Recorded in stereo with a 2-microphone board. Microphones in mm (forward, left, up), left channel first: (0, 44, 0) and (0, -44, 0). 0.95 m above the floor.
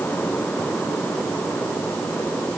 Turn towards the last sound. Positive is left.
No sound to turn to.